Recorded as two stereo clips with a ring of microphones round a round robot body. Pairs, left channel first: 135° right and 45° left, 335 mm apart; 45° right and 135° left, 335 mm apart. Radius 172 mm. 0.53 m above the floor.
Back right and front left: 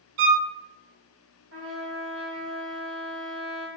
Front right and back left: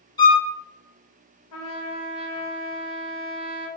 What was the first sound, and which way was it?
A violin, 35° left.